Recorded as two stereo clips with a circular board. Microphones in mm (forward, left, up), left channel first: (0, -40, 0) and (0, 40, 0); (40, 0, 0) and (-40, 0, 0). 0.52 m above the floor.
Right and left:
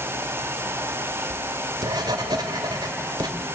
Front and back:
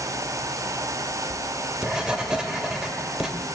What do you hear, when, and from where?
1.3 s writing: 100° left, 1.9 m